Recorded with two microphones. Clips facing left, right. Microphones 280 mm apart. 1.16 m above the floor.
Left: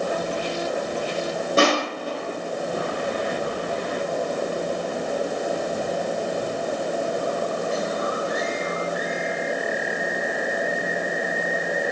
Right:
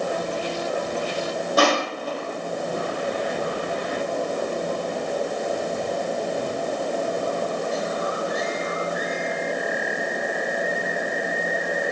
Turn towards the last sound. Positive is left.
turn(degrees=25)  # may be behind; listen again after turning